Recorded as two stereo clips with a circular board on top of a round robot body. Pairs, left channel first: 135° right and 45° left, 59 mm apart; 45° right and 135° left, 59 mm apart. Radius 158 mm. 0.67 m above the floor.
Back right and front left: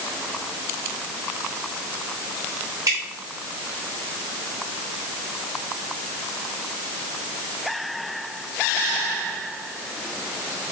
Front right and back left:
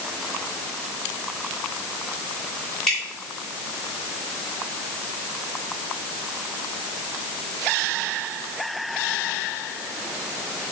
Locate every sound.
2.9 s dripping: 35° left, 3.5 m